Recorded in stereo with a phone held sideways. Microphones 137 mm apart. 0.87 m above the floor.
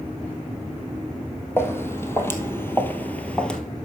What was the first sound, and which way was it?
Footsteps, 15° left (ahead or behind).